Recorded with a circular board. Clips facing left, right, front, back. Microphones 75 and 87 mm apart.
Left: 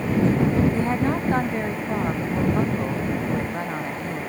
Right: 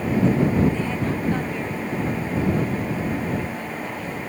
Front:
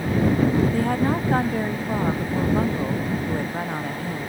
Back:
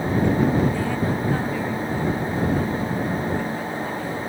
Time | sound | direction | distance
0.7 | a woman speaking | 40° left | ?